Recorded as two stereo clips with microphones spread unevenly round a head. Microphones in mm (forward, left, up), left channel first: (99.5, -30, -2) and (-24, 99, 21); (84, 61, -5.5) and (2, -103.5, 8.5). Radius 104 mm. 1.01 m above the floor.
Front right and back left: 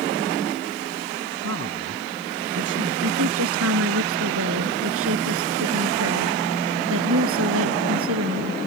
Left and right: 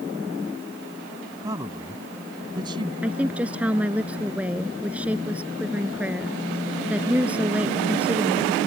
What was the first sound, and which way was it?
A man speaking, 170° left.